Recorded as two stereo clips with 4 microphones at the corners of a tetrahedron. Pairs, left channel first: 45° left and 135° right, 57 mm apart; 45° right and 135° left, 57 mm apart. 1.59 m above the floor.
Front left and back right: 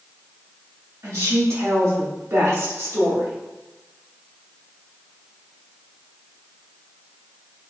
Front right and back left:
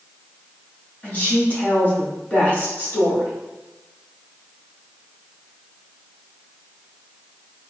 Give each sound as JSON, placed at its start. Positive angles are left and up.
{"t": 1.0, "sound": "a woman speaking", "azimuth_deg": -110, "distance_m": 1.2}